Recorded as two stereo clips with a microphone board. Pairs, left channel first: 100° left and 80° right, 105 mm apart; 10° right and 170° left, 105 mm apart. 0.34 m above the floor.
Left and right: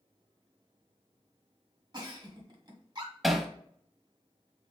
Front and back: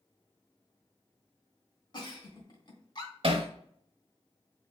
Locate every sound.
1.9 s a giggle: 50° right, 1.3 m
3.2 s hammering: 170° right, 0.7 m